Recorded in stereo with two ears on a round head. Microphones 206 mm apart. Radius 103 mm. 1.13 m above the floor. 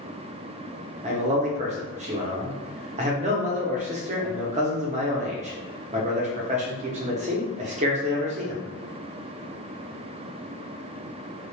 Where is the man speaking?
30° right (ahead or behind), 0.6 m.